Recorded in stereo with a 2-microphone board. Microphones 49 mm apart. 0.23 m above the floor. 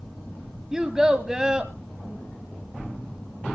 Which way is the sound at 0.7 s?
15° right (ahead or behind).